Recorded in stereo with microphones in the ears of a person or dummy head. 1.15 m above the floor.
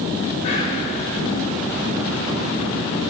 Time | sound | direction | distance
0.4 | whispering | 35° left (ahead or behind) | 1.8 m